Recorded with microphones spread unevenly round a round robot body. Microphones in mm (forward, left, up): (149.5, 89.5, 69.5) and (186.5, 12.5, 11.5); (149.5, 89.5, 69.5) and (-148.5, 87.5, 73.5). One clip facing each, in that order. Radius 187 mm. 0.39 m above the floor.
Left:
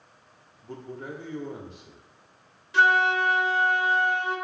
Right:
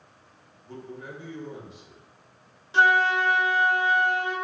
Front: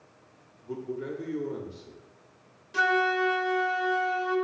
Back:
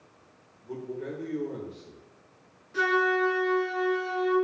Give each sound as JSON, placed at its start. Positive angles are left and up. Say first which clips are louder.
{"t": 0.6, "sound": "a man speaking", "louder": "left 2 dB, front 1 dB", "azimuth_deg": 65, "distance_m": 1.3}
{"t": 2.7, "sound": "a flute", "louder": "right 1 dB, back 2 dB", "azimuth_deg": -35, "distance_m": 2.0}